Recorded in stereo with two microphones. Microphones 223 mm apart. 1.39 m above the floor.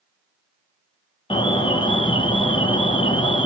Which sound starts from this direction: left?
An alarm, at 1.3 s.